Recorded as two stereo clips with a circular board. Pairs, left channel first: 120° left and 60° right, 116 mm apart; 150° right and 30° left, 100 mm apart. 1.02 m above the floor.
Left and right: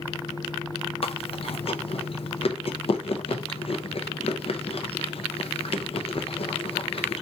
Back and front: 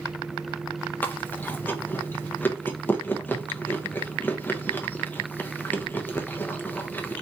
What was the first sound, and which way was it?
Chewing, 145° left.